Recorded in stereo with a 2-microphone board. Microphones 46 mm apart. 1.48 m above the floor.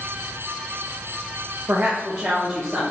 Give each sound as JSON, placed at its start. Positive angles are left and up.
{"t": 1.7, "sound": "a woman speaking", "side_deg": -50, "distance_m": 0.5}